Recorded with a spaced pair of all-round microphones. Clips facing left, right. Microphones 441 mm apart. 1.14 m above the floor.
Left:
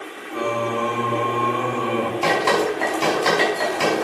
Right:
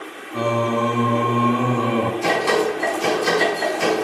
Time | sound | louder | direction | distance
0.3 | singing | right 3 dB | 55° right (ahead or behind) | 0.8 m
2.2 | dripping | left 1 dB | 85° left | 5.5 m